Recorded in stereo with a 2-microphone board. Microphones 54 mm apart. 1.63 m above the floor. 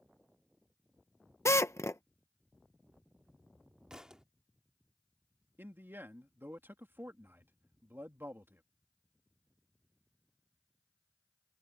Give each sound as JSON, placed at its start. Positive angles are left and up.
{"t": 1.4, "sound": "a drill", "side_deg": 65}
{"t": 3.9, "sound": "a thud", "side_deg": -15}
{"t": 5.6, "sound": "a man speaking", "side_deg": -45}